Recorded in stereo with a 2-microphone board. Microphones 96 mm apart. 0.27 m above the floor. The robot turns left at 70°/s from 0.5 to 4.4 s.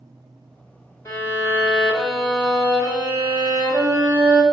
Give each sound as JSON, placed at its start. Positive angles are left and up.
{"t": 1.1, "sound": "a violin", "azimuth_deg": 75, "distance_m": 1.6}